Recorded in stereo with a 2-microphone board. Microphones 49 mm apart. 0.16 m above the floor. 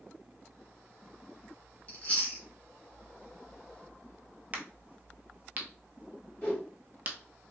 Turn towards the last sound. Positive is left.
turn(degrees=30)  # may be behind; listen again after turning